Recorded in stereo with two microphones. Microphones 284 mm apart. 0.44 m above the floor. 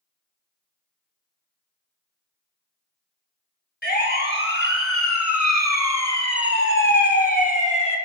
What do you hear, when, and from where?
3.8 s a siren: 35° left (ahead or behind), 3 m; by 8.0 s 20° left (ahead or behind), 3 m